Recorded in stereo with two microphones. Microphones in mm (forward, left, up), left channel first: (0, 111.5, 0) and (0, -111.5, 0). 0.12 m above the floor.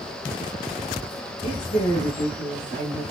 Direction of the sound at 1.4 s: 25° left (ahead or behind).